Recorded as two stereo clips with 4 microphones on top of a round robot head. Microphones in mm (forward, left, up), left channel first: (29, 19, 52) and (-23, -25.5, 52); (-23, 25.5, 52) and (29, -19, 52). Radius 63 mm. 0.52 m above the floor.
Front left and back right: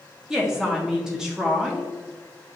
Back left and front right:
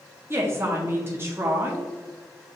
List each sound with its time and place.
0.3 s a woman speaking: 65° right, 0.7 m